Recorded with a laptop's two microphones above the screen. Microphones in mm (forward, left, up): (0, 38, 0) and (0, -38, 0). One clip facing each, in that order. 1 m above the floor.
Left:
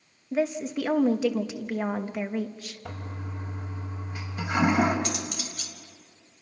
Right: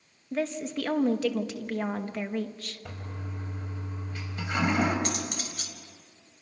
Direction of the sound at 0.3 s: 10° left (ahead or behind).